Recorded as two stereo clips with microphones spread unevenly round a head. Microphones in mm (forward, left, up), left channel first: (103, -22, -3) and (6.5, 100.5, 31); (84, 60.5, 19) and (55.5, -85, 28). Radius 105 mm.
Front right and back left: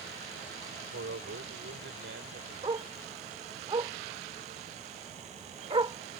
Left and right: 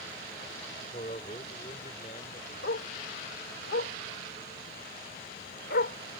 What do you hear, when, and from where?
0.9 s a man speaking: 140° left
2.6 s a dog barking: 85° left